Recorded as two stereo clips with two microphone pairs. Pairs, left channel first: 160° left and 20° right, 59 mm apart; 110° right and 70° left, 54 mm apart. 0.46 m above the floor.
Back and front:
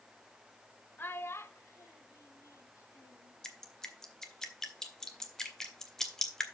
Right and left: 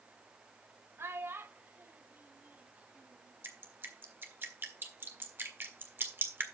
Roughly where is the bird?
I don't hear a bird.